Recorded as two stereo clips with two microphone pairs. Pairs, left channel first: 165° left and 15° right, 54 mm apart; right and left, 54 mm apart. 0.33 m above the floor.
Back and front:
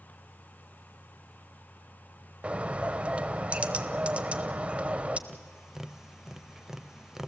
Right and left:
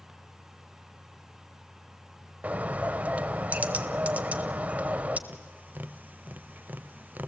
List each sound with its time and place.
2.4 s a bird: 45° left, 0.9 m
5.3 s tapping: 65° left, 0.7 m